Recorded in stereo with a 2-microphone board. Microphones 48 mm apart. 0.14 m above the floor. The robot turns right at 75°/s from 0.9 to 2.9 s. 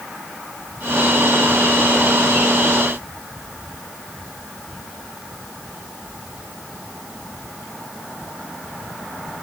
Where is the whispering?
No whispering in this recording.